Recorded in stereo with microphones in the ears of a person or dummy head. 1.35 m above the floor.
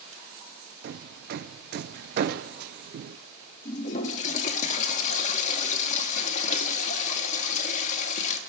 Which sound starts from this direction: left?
A toilet flushing, at 3.6 s.